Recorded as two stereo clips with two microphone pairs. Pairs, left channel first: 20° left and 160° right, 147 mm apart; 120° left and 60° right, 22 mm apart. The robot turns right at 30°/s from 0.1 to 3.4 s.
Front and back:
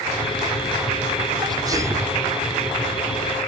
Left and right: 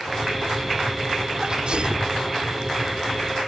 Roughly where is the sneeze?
Right.